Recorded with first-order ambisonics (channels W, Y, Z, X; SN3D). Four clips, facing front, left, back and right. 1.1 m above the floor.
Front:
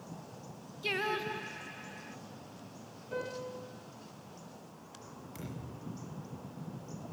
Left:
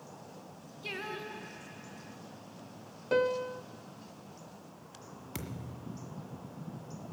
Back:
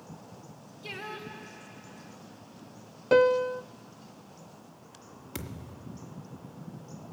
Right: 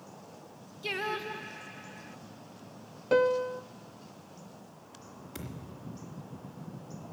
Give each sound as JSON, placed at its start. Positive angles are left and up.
{"t": 0.8, "sound": "singing", "azimuth_deg": -40, "distance_m": 0.6}
{"t": 3.1, "sound": "a piano", "azimuth_deg": -170, "distance_m": 0.6}
{"t": 5.3, "sound": "a thud", "azimuth_deg": 150, "distance_m": 1.6}